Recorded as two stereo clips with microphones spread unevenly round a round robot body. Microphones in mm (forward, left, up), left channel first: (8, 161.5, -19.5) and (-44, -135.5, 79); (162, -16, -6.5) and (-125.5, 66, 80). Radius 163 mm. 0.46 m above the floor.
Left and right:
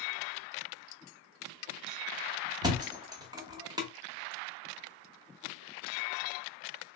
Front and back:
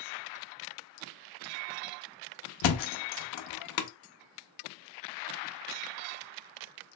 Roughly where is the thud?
Ahead.